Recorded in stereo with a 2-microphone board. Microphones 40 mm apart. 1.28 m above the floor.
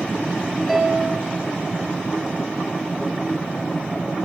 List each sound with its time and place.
0.7 s a piano: 5° right (ahead or behind), 4 m